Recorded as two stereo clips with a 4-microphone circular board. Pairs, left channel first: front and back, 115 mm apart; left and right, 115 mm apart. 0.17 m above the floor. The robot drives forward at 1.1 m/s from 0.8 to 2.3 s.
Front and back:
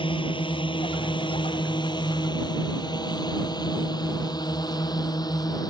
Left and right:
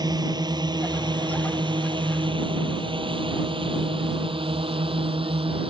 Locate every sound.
0.0 s a drone: 40° right; by 5.7 s 55° right